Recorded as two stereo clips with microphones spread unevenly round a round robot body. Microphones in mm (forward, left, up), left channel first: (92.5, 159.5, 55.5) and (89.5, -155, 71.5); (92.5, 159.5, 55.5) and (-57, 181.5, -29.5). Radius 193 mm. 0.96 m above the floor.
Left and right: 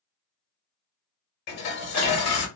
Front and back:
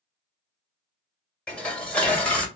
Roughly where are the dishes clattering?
Left.